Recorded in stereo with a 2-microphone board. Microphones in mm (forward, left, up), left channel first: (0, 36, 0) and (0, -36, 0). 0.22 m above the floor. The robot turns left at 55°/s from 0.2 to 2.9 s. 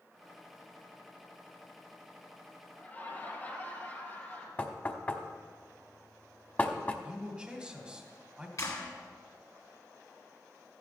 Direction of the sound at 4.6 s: 25° left (ahead or behind).